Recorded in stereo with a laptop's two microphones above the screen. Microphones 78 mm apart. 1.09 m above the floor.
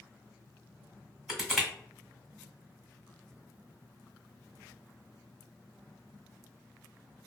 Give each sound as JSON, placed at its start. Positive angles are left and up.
{"t": 1.3, "sound": "crushing", "side_deg": -5, "distance_m": 1.3}